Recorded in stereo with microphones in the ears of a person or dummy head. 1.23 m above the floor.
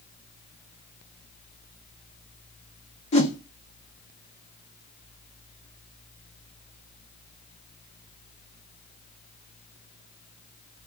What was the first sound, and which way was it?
A whoosh, 40° left (ahead or behind).